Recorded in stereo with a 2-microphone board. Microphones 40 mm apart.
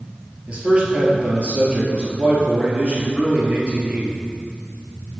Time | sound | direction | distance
0.5 | a man speaking | 25° right (ahead or behind) | 1.9 m